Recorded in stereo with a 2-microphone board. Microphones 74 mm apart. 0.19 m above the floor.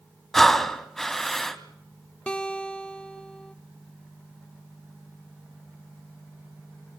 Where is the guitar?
10° left (ahead or behind), 1.2 m.